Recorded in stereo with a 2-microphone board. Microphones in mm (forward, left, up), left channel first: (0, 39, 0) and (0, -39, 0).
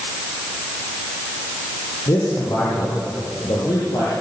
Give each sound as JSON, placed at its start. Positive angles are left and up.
{"t": 2.1, "sound": "a man speaking", "side_deg": 50, "distance_m": 7.5}